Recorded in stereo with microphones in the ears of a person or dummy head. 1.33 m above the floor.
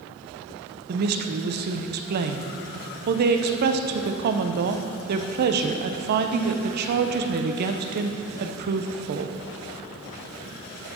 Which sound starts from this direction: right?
A woman speaking, at 0.9 s.